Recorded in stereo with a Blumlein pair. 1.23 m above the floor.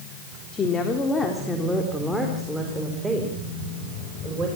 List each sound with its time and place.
0.5 s a woman speaking: 20° left, 3 m; by 4.5 s 20° right, 5.5 m